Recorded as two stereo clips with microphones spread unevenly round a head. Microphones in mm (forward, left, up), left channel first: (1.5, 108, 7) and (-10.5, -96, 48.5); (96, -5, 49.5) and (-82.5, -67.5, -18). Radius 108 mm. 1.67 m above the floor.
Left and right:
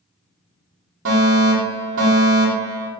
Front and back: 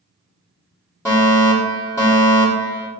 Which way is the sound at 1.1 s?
60° right.